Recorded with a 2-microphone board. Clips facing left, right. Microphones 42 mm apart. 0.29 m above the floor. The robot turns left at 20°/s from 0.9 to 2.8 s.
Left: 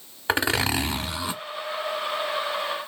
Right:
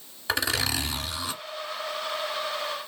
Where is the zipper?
30° left (ahead or behind), 0.8 m; by 1.4 s 25° left (ahead or behind), 0.8 m.